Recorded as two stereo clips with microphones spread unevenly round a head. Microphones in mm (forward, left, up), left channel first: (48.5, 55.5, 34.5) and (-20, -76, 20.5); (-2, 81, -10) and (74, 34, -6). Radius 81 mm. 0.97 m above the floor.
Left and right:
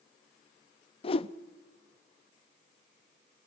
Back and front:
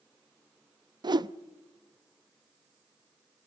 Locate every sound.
1.0 s a whoosh: 10° left, 0.6 m